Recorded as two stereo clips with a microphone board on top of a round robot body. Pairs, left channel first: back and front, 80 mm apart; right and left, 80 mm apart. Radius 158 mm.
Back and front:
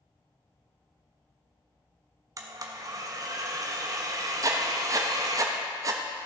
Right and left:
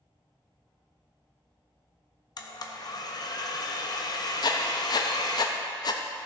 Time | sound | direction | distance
2.4 | a blender | 50° right | 0.6 m
4.4 | writing | 50° right | 0.5 m